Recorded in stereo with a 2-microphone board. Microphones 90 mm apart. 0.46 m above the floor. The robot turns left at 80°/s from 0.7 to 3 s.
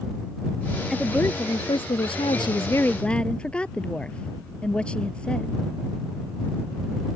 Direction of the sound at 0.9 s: Straight behind.